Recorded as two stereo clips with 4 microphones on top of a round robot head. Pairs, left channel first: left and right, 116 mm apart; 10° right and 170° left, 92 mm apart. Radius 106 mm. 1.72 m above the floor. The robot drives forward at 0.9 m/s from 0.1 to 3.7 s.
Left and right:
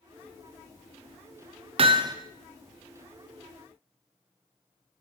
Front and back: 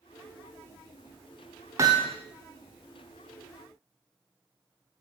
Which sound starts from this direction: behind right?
Hammering, at 1.8 s.